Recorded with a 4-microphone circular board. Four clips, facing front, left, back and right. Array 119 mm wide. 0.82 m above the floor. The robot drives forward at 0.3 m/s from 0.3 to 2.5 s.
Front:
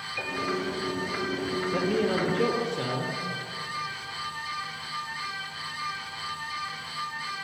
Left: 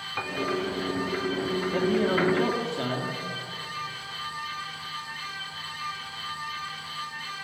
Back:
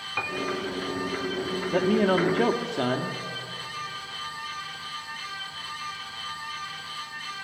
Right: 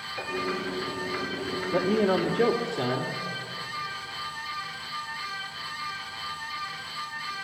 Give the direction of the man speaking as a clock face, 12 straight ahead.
6 o'clock.